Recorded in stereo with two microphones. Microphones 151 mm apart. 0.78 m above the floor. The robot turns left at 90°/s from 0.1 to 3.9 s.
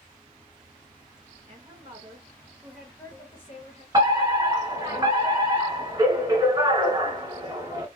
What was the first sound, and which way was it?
Running water, 25° right.